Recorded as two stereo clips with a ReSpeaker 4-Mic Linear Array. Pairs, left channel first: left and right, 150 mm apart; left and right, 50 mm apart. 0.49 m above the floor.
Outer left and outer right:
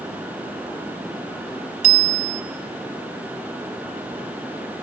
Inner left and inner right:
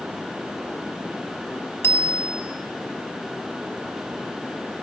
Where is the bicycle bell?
50° left (ahead or behind), 2.5 m.